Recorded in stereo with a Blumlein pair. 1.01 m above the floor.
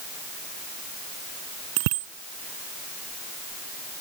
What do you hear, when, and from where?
1.8 s a bicycle bell: 45° right